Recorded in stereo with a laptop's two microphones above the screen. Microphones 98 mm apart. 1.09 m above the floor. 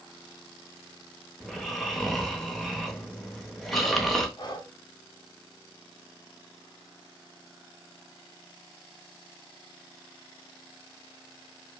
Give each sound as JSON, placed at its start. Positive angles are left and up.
{"t": 1.4, "sound": "snoring", "side_deg": 0, "distance_m": 0.6}
{"t": 4.4, "sound": "breathing", "side_deg": 45, "distance_m": 0.7}